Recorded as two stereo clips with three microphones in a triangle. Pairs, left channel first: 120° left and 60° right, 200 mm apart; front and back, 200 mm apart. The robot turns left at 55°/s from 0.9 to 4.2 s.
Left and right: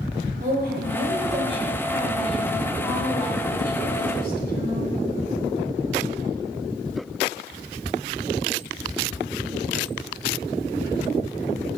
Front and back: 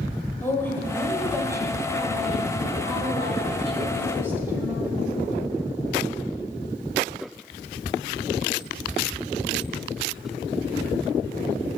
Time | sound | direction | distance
0.4 | a woman speaking | 75° right | 1.5 m